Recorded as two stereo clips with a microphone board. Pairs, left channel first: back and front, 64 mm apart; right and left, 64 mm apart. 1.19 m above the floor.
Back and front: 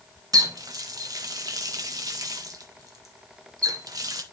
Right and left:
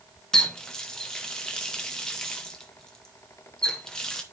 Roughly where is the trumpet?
No trumpet in this recording.